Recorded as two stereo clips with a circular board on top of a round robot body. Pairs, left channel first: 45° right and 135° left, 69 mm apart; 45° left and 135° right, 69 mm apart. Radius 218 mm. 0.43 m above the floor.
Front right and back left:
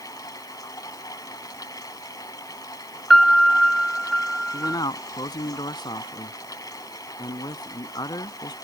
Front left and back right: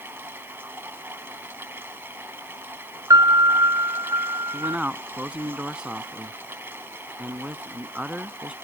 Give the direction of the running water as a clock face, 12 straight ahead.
3 o'clock.